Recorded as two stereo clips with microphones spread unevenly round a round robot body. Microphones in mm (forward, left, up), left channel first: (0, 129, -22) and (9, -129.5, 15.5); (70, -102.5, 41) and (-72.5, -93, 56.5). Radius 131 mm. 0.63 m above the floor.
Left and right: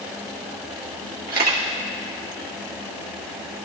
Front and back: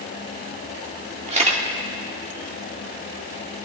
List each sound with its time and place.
1.3 s a camera shutter: 145° right, 1.6 m